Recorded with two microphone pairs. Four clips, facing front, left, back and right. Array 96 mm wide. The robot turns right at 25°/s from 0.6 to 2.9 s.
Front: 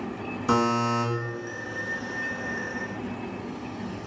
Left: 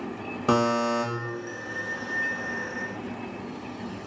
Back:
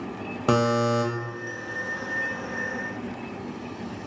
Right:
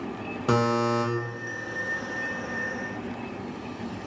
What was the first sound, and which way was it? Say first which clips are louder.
A buzzer: left 1 dB, back 2 dB; 160° left.